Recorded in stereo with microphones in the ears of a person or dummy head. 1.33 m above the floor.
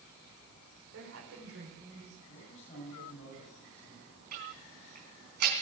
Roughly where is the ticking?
Right.